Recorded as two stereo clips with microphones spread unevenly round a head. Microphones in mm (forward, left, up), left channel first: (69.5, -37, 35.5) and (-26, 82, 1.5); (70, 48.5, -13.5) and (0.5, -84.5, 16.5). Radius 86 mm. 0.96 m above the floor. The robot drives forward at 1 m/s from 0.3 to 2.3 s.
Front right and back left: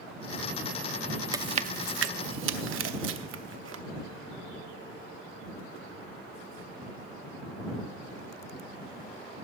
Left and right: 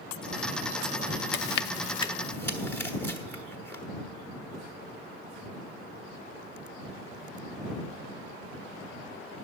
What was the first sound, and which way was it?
Chewing, 55° left.